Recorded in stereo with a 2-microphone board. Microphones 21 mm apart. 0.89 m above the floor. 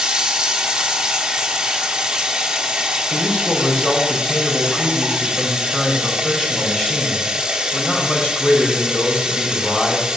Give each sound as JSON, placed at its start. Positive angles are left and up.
{"t": 0.0, "sound": "running water", "side_deg": -35, "distance_m": 1.7}
{"t": 3.1, "sound": "a man speaking", "side_deg": 60, "distance_m": 3.5}